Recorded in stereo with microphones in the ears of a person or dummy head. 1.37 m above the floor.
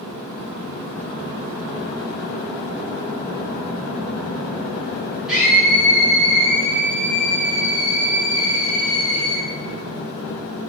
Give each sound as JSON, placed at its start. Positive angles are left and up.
{"t": 5.3, "sound": "a scream", "side_deg": -15, "distance_m": 1.0}